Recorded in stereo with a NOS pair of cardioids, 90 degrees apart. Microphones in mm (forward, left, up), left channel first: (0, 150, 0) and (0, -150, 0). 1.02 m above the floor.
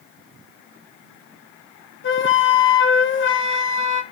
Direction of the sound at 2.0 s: 40° left.